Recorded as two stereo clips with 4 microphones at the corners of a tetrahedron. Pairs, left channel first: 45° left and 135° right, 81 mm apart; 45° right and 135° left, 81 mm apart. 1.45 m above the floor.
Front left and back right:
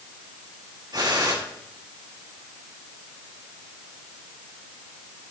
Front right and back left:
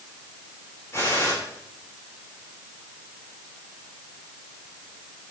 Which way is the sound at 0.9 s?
100° right.